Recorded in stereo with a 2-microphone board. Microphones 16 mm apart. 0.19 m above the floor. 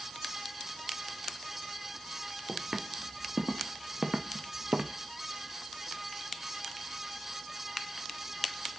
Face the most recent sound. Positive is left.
turn(degrees=-80)